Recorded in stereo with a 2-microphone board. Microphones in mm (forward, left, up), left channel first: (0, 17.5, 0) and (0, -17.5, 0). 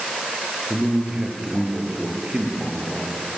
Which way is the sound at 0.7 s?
25° right (ahead or behind).